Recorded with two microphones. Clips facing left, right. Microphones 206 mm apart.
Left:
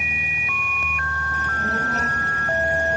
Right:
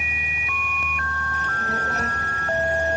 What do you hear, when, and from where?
1.3 s a child speaking: 45° left (ahead or behind), 8 m; by 3.0 s 55° left (ahead or behind), 7 m